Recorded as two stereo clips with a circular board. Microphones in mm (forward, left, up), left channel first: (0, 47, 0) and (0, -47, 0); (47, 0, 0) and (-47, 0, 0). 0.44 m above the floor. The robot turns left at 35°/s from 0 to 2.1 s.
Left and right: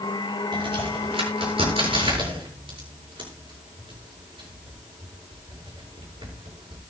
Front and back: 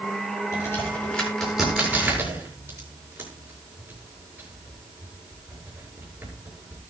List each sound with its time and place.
0.5 s a crack: 55° right, 7 m; by 6.8 s 110° right, 7 m